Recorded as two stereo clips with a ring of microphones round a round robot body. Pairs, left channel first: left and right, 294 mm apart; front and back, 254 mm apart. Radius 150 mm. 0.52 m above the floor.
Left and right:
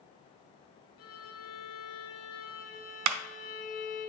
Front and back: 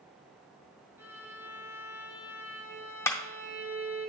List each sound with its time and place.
1.0 s a violin: 100° left, 3 m
3.1 s a clap: 80° right, 0.7 m